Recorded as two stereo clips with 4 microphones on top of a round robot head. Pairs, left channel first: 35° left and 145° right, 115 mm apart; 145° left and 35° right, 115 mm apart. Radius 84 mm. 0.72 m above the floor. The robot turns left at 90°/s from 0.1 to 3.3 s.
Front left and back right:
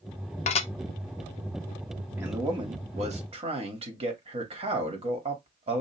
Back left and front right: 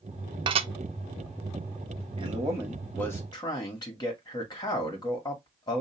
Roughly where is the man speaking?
Ahead right.